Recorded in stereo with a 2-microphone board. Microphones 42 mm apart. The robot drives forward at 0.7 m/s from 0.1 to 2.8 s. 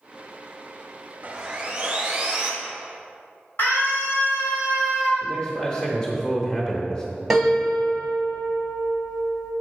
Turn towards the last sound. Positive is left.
turn(degrees=-5)  # may be behind; listen again after turning